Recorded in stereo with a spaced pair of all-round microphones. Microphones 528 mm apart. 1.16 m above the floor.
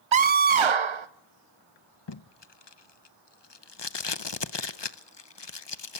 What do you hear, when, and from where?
0.1 s a scream: 65° right (ahead or behind), 0.6 m
2.1 s tape being pulled: 50° left (ahead or behind), 0.8 m